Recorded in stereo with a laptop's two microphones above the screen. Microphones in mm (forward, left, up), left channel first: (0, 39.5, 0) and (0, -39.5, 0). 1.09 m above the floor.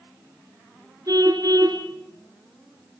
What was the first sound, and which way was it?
A car horn, 50° right (ahead or behind).